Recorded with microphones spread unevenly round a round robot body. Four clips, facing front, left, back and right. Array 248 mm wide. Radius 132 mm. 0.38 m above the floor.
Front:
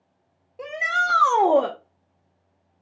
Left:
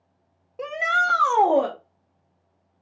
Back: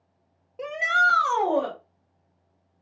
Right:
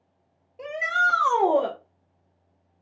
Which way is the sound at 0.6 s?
100° left.